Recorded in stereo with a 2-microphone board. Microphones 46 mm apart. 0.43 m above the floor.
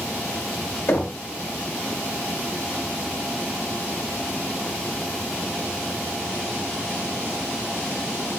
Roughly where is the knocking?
Left.